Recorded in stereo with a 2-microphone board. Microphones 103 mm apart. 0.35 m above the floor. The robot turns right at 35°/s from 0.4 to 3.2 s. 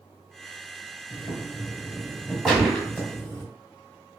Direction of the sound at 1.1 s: 30° left (ahead or behind).